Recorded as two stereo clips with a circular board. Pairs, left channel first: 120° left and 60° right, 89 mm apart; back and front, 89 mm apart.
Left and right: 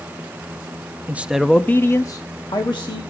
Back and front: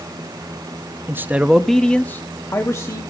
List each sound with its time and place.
1.1 s a man speaking: 20° right, 0.7 m; by 3.0 s 130° left, 1.3 m